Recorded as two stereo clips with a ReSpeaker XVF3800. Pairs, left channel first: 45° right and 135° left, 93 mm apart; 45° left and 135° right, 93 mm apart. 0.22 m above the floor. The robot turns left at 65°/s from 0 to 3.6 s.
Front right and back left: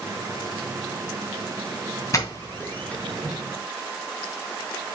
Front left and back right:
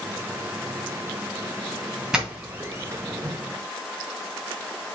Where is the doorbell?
55° right, 2 m; by 3.4 s 140° right, 2 m.